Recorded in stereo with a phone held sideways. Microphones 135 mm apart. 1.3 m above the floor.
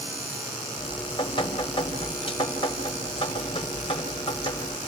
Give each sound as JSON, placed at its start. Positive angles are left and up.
{"t": 0.8, "sound": "dripping", "side_deg": 35, "distance_m": 4.5}